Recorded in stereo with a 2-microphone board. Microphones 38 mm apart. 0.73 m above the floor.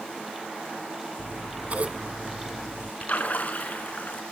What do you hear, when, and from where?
1.2 s scissors: 40° right (ahead or behind), 1.9 m
3.0 s a splash: 45° left (ahead or behind), 3.5 m